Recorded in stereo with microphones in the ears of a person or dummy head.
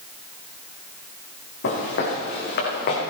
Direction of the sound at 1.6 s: 70° left (ahead or behind).